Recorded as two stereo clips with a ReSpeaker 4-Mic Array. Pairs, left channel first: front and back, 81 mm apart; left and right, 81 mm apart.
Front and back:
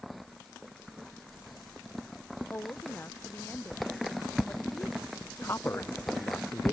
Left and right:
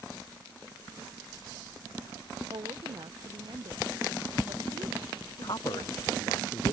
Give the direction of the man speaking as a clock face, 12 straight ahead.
10 o'clock.